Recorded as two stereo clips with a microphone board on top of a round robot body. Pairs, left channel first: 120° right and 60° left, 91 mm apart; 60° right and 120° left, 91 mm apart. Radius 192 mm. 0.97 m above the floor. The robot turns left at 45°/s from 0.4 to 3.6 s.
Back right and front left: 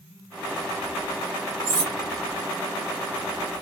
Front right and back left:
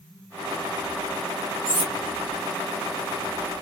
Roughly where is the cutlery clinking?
Ahead left.